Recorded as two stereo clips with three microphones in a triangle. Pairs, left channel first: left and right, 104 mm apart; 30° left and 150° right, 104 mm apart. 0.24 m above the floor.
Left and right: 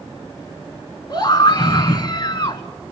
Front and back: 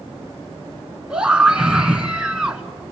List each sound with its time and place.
1.1 s a scream: 130° left, 2.5 m